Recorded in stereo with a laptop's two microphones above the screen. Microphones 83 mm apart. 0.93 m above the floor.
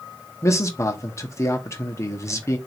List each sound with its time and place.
0.4 s a man speaking: 35° left (ahead or behind), 0.9 m